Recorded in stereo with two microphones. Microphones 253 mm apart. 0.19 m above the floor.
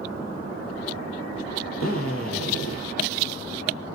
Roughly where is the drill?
Left.